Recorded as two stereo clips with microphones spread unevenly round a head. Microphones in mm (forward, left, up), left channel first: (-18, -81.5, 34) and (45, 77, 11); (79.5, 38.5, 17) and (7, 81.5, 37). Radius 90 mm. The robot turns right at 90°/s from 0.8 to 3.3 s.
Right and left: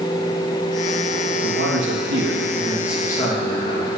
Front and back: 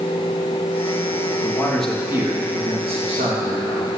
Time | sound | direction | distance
1.4 | a man speaking | 25° left | 3 m